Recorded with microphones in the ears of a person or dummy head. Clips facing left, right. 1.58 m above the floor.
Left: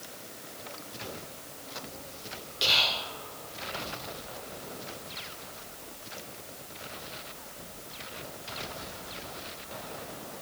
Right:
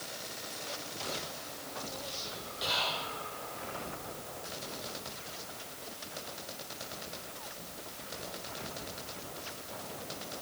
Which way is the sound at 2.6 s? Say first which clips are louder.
Left 2 dB; 40° left (ahead or behind).